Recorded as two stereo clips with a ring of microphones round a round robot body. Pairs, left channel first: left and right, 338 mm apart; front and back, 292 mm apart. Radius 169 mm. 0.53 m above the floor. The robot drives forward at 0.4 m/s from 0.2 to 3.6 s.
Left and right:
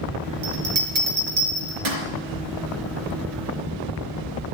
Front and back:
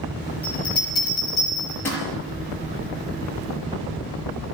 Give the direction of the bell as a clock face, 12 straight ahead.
3 o'clock.